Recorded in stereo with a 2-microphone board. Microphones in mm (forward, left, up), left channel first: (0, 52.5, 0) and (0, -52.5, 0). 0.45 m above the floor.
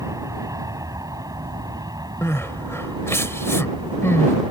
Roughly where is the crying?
Left.